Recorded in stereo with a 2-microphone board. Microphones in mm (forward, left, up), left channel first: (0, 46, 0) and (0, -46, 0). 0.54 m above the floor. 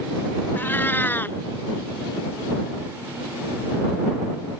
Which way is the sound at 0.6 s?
20° left (ahead or behind).